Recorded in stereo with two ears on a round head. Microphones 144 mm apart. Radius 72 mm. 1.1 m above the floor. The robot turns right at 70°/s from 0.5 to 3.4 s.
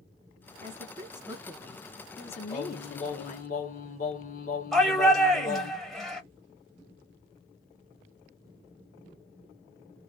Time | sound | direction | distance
0.6 | a woman speaking | 70° right | 1.0 m
2.5 | singing | 30° left | 0.8 m
4.7 | a shout | centre (ahead or behind) | 1.0 m